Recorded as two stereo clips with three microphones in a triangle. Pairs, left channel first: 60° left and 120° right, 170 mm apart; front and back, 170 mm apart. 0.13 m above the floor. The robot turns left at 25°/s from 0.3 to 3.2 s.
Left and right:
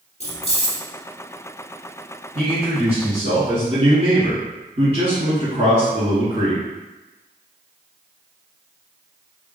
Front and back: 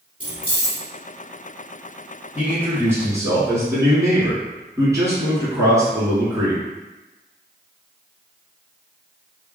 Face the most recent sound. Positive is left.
turn(degrees=-125)